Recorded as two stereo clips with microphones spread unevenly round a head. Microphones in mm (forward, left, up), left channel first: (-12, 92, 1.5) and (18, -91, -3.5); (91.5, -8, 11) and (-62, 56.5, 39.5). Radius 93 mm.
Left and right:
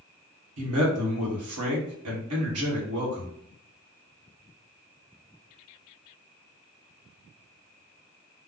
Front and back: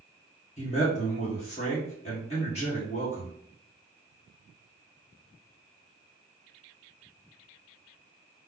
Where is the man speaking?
80° right, 1.6 m.